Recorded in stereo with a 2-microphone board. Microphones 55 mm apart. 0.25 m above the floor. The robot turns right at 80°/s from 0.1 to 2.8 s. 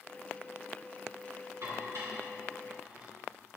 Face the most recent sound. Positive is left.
turn(degrees=-15)  # may be behind; listen again after turning